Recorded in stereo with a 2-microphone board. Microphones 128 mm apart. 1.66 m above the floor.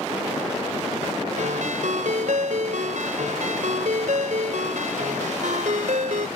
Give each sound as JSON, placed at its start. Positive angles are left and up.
{"t": 1.4, "sound": "a ringtone", "side_deg": -75}